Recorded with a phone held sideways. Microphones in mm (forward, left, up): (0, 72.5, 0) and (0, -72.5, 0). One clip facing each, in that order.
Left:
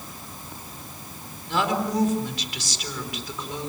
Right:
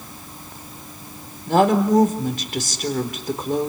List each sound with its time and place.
1.5 s a woman speaking: 50° right (ahead or behind), 4 m